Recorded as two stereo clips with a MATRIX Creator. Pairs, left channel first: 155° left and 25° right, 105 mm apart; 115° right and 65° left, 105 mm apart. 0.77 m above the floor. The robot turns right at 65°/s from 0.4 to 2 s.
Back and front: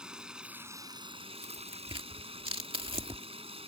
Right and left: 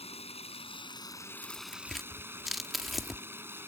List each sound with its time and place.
0.0 s running water: 105° right; by 3.7 s straight ahead
1.4 s tearing paper: 60° right; by 3.2 s 20° right